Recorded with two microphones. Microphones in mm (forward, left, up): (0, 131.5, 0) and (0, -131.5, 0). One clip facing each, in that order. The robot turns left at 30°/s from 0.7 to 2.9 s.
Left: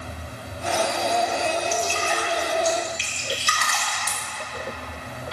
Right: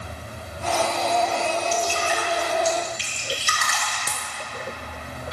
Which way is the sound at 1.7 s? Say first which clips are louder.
Right 1 dB; 15° right (ahead or behind).